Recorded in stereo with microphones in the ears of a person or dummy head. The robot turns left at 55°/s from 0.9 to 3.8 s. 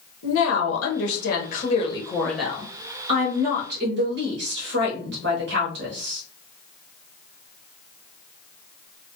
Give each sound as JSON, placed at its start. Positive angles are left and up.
{"t": 0.2, "sound": "a woman speaking", "azimuth_deg": 85, "distance_m": 0.9}